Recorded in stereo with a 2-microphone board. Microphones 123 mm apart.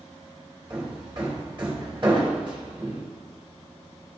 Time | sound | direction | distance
0.7 | hammering | 45° right (ahead or behind) | 2.5 m